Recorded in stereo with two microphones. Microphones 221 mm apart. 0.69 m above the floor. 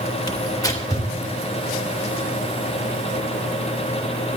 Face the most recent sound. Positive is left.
turn(degrees=15)  # may be behind; listen again after turning